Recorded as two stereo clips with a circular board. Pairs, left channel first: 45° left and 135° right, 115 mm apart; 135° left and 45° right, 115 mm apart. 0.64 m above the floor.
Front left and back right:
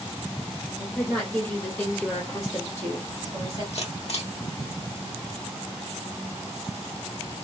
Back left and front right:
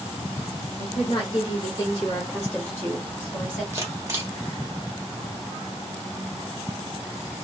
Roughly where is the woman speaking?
Behind left.